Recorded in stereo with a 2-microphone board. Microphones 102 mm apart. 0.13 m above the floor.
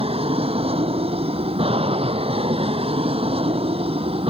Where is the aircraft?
70° right (ahead or behind).